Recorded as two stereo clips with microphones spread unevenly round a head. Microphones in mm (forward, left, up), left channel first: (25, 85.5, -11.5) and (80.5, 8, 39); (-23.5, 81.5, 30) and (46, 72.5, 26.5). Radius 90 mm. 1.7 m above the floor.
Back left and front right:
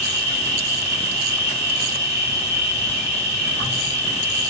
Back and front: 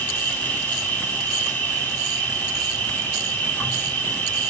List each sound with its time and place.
0.0 s an insect: 115° left, 2 m